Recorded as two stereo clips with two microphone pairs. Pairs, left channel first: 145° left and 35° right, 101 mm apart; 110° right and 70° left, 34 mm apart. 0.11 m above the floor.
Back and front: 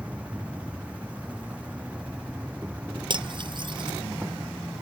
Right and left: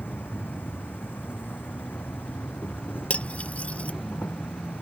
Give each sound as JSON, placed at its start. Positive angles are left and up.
{"t": 0.0, "sound": "an insect", "azimuth_deg": -110}
{"t": 3.1, "sound": "cutlery clinking", "azimuth_deg": -65}